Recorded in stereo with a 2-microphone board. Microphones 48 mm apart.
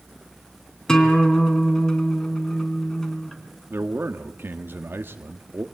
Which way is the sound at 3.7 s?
50° right (ahead or behind).